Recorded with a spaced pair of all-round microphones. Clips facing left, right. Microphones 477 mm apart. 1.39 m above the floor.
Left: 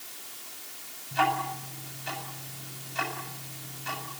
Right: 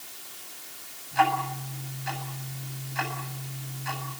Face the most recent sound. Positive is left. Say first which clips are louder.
# right 2 dB
turn(degrees=50)  # may be behind; listen again after turning